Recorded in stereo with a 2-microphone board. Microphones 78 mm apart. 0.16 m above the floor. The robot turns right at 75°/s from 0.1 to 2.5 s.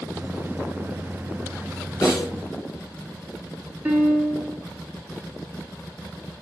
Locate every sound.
2.0 s a snare drum: 45° left (ahead or behind), 2.5 m; by 2.3 s 50° left (ahead or behind), 2.5 m
3.9 s a piano: 25° right (ahead or behind), 1.4 m